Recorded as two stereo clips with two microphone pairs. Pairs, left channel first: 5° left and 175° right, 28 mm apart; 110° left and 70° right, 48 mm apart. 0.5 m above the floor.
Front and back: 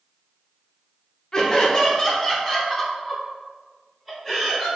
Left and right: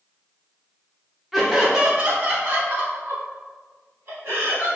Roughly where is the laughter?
Ahead.